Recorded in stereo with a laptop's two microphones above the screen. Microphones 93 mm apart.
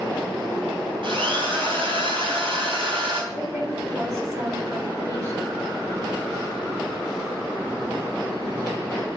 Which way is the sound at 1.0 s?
60° right (ahead or behind).